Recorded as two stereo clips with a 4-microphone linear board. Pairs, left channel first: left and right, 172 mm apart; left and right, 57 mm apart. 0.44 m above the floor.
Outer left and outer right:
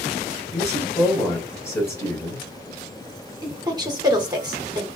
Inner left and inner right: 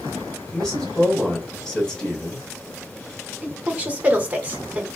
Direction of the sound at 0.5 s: 15° left (ahead or behind).